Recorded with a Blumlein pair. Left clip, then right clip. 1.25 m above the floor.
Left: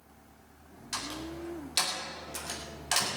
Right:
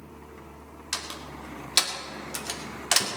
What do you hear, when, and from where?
0.9 s a door slam: 65° right, 2.5 m